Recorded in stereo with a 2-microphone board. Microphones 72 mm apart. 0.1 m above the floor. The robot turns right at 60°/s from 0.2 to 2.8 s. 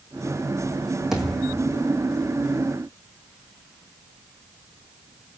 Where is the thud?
5° right, 2.5 m; by 1.8 s 35° left, 2.5 m.